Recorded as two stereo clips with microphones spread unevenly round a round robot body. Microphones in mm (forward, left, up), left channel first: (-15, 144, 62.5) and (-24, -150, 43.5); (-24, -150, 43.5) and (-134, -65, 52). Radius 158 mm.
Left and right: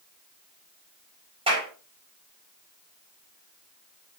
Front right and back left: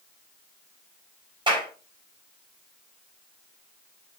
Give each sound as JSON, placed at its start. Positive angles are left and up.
{"t": 1.5, "sound": "a clap", "azimuth_deg": -165, "distance_m": 4.5}